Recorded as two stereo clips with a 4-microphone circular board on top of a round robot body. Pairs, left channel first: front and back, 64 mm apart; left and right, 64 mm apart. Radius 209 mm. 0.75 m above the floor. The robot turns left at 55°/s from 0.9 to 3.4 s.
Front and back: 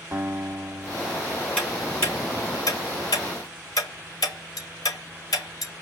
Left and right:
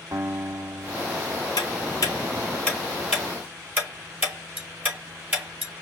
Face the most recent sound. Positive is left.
turn(degrees=-25)